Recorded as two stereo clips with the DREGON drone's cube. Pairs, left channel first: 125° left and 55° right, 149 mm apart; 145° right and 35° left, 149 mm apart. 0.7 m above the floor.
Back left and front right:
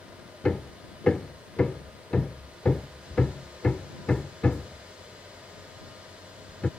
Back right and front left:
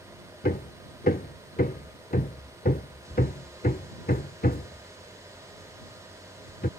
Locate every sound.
0.4 s hammering: 150° right